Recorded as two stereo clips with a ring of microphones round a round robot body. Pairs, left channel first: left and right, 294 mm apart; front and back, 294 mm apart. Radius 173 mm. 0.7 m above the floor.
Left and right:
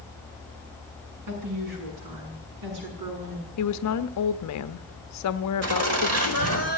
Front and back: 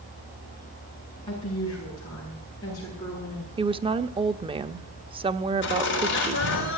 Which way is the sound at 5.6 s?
55° right.